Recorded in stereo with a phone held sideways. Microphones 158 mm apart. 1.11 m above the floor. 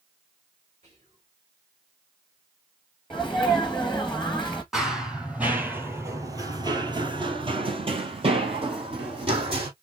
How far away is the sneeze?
About 1.0 m.